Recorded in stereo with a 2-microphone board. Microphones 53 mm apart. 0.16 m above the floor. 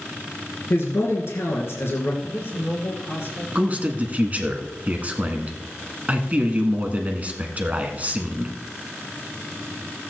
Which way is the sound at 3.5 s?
35° right (ahead or behind).